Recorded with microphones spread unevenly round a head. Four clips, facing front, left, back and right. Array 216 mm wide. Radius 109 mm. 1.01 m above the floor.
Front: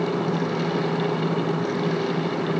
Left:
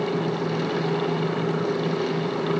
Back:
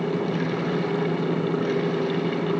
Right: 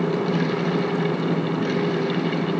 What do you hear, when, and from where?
Only background noise.